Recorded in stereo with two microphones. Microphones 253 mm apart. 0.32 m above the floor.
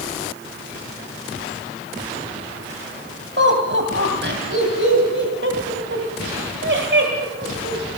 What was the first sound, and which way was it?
Laughter, 50° right (ahead or behind).